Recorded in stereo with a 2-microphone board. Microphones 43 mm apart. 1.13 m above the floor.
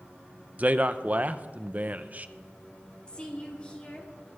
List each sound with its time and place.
0.6 s a man speaking: 40° right (ahead or behind), 0.8 m
3.1 s a woman speaking: 25° left (ahead or behind), 3 m